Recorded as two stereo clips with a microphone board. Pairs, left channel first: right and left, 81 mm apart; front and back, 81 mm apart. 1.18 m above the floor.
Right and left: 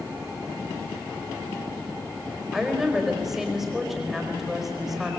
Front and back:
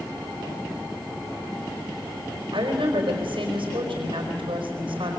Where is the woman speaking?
175° left, 5 m.